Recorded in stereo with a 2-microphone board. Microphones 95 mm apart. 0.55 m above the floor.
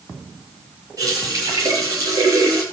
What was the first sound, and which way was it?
A running tap, 40° right (ahead or behind).